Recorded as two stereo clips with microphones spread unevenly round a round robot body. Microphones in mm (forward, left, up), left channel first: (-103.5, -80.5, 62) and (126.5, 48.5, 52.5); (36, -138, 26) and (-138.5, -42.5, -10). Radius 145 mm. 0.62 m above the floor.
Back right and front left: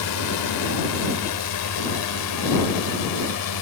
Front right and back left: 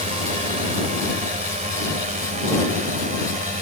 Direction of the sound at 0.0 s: 155° right.